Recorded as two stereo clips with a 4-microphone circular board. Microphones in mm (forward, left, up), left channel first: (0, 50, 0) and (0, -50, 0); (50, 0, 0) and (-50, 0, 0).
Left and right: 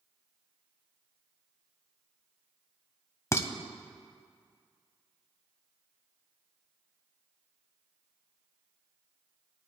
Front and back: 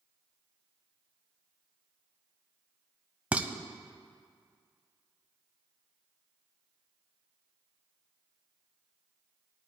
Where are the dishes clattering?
115° left, 0.7 m.